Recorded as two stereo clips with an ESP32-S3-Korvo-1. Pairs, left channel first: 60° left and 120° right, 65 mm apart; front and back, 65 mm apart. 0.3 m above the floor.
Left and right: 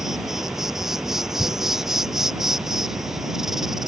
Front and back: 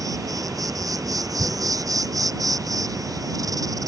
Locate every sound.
0.0 s an insect: 155° left
1.4 s tearing paper: 125° right